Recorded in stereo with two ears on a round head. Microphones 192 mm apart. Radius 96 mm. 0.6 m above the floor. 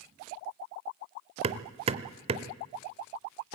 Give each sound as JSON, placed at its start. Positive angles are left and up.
{"t": 1.4, "sound": "hammering", "side_deg": -30, "distance_m": 0.8}